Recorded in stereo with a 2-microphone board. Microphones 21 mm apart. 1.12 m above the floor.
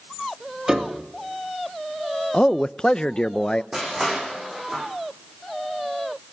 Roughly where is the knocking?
I don't hear knocking.